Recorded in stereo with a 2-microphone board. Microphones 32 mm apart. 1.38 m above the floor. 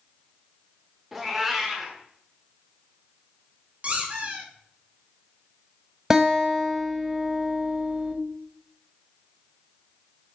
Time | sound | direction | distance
1.1 | a cat meowing | 5° right (ahead or behind) | 1.1 m
3.8 | a squeak | 45° right (ahead or behind) | 1.4 m
6.1 | a guitar | 15° right (ahead or behind) | 0.8 m